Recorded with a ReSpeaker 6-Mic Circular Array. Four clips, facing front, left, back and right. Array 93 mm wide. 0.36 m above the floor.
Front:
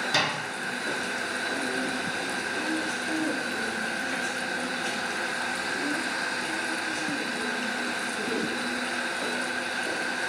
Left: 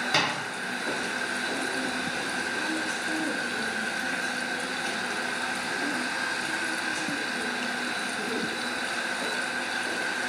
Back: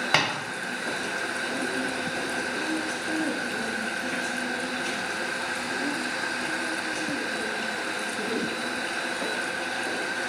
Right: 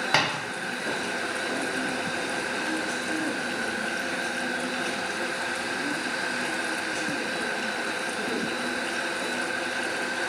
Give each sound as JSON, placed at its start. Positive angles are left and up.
{"t": 0.1, "sound": "tapping", "azimuth_deg": -150, "distance_m": 1.3}